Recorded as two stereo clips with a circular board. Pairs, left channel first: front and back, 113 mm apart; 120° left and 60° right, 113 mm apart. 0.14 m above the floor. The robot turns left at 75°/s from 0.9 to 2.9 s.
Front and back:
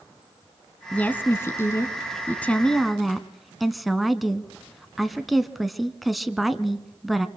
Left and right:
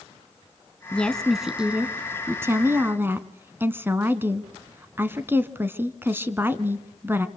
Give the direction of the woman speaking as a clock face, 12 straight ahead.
10 o'clock.